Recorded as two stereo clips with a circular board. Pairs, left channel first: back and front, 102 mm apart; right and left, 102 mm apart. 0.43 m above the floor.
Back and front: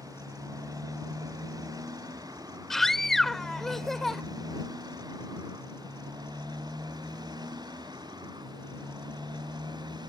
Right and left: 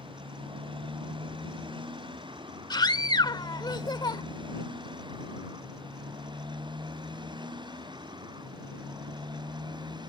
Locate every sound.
0.0 s a motorcycle: 55° left; by 10.1 s 45° left
2.7 s a scream: 95° right